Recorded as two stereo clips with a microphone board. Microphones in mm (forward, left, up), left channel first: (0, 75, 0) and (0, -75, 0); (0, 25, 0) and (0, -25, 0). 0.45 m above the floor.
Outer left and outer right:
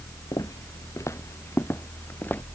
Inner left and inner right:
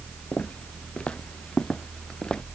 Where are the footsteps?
25° left (ahead or behind); by 2.4 s 15° left (ahead or behind).